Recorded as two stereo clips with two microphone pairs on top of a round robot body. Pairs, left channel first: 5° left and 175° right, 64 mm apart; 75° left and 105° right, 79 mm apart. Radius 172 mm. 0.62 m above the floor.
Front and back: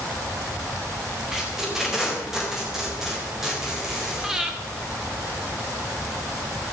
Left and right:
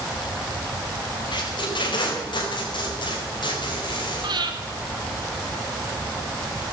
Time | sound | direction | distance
1.3 | tape being pulled | 100° left | 4.5 m
4.2 | breathing | 95° right | 2.5 m